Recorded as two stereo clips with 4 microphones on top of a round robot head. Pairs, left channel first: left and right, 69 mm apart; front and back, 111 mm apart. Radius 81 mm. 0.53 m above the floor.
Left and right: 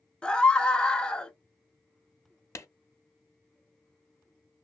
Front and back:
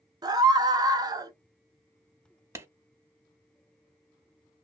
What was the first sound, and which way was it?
A scream, 160° left.